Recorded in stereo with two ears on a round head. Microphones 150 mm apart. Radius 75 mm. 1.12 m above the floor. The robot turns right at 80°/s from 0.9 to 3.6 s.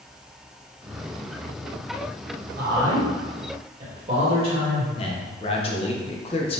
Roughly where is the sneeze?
I don't hear a sneeze.